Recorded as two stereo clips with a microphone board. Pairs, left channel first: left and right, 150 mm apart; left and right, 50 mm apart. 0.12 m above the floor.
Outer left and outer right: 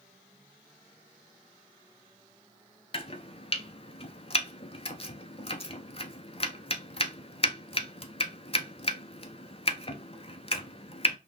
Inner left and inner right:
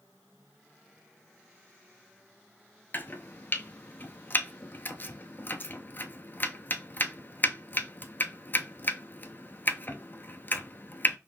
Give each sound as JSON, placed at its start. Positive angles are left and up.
{"t": 2.9, "sound": "chopping", "side_deg": 40, "distance_m": 0.6}